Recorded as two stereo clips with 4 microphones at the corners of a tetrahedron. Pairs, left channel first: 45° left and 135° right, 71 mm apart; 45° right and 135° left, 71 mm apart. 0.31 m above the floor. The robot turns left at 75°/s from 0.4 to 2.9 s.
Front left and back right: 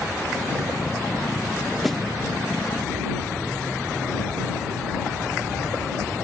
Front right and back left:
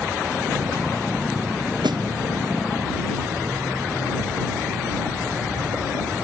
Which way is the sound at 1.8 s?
140° left.